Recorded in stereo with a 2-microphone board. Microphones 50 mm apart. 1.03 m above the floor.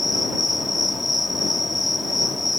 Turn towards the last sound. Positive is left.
turn(degrees=-5)  # may be behind; listen again after turning